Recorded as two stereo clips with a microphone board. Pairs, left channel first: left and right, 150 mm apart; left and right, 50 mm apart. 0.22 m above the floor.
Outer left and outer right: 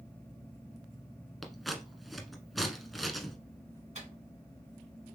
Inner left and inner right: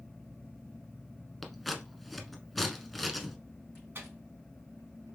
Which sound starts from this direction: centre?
Scissors, at 1.4 s.